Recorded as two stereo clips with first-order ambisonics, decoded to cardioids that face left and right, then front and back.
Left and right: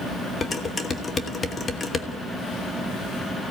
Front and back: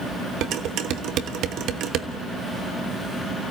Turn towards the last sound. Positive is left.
turn(degrees=155)